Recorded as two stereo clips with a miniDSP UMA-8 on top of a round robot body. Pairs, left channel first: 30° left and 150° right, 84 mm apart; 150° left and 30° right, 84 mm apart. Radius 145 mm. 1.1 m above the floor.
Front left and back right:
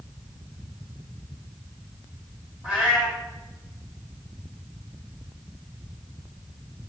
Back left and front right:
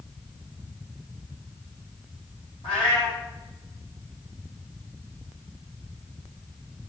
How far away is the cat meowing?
About 1.2 m.